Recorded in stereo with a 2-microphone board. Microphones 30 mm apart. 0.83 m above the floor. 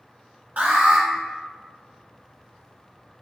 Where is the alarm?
70° right (ahead or behind), 0.9 m.